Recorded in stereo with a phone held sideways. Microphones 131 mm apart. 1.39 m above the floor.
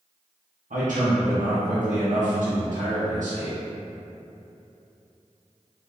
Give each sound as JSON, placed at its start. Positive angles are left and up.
{"t": 0.7, "sound": "a man speaking", "side_deg": -75, "distance_m": 0.8}